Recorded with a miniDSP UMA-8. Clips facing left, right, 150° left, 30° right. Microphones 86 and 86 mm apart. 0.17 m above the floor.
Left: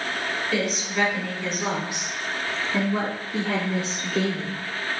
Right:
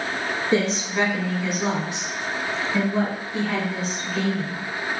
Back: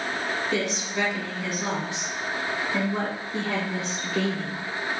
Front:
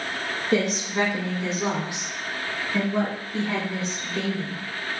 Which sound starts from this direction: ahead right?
A woman speaking, at 0.5 s.